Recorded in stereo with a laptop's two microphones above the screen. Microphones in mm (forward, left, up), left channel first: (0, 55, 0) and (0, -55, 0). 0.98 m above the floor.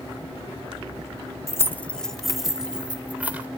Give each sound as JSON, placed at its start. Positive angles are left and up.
{"t": 1.5, "sound": "keys jangling", "side_deg": 25, "distance_m": 1.0}